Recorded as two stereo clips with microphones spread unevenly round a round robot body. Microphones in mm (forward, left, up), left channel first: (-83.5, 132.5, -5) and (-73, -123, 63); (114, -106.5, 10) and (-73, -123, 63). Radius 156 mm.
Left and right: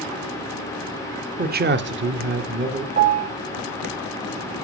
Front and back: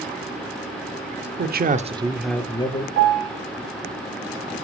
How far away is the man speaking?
About 1.4 m.